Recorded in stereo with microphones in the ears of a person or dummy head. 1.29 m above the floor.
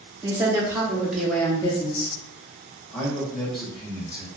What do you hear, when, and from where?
0.2 s a woman speaking: 20° right (ahead or behind), 1.3 m; by 2.1 s 45° left (ahead or behind), 0.6 m
2.9 s a man speaking: centre (ahead or behind), 0.7 m